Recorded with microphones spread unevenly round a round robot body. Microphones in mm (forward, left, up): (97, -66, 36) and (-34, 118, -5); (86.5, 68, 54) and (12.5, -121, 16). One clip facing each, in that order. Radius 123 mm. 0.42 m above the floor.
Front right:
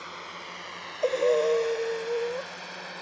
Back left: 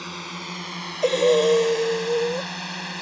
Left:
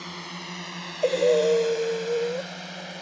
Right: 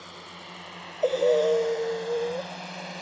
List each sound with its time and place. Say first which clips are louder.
0.0 s a drone: back left 8 dB, left 6 dB; 100° left; by 3.0 s 155° left
1.0 s breathing: back left 5 dB, left 2 dB; 140° left